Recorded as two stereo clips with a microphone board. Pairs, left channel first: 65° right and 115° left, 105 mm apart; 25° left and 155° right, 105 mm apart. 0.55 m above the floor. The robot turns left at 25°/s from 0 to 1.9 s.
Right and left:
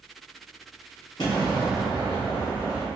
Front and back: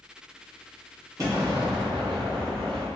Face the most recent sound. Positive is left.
turn(degrees=-125)